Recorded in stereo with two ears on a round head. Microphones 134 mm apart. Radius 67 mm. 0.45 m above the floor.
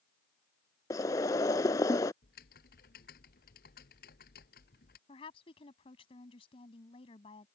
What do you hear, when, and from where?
0.9 s boiling: 25° left (ahead or behind)
2.2 s typing on a keyboard: 70° left (ahead or behind)
5.1 s a woman speaking: 40° left (ahead or behind)